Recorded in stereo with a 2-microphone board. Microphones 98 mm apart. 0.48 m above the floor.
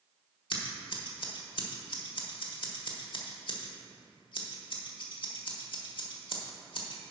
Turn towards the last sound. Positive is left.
turn(degrees=55)  # may be behind; listen again after turning